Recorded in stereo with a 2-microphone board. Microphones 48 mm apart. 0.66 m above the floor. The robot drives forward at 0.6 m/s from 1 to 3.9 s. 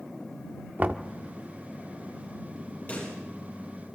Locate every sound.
0.8 s knocking: 40° right (ahead or behind), 1.0 m; by 1.1 s 35° right (ahead or behind), 1.1 m
2.9 s a pop: 35° left (ahead or behind), 10 m